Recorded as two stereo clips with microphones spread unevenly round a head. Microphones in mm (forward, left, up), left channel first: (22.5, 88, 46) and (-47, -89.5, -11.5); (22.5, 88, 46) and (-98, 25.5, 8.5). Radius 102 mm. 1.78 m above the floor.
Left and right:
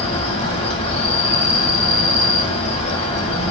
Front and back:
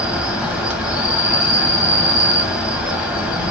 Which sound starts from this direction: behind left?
An insect, at 0.0 s.